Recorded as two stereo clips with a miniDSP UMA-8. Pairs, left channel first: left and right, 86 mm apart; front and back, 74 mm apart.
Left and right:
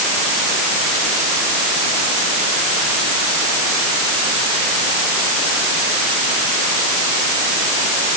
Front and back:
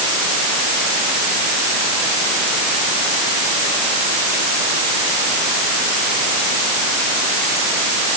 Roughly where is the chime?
I don't hear a chime.